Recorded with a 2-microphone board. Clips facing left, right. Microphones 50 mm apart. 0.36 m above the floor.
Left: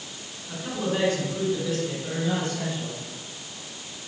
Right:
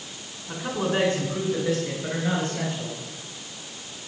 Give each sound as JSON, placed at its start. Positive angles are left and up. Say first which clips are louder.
{"t": 0.5, "sound": "a man speaking", "louder": "right 2 dB", "side_deg": -45, "distance_m": 4.0}